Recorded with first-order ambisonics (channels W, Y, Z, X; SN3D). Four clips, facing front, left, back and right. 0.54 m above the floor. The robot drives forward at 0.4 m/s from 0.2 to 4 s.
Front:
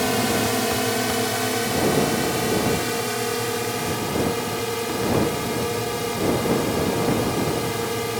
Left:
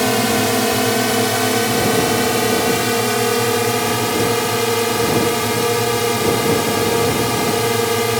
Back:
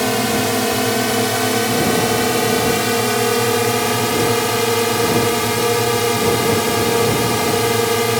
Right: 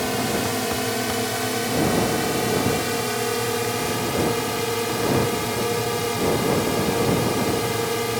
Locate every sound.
0.0 s a drone: 120° left; by 8.2 s 145° left